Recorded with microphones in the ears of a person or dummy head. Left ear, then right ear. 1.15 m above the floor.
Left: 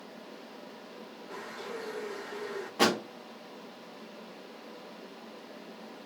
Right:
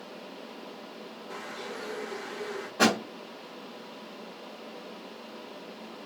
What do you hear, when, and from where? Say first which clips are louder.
1.3 s a bird: right 1 dB; 20° right (ahead or behind), 0.9 m
2.8 s a thud: right 2 dB; 30° left (ahead or behind), 1.3 m